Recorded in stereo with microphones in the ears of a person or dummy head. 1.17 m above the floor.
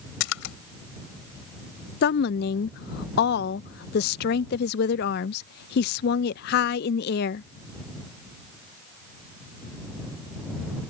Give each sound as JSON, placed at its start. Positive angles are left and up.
{"t": 0.2, "sound": "a splash", "side_deg": 80}
{"t": 2.0, "sound": "a woman speaking", "side_deg": 60}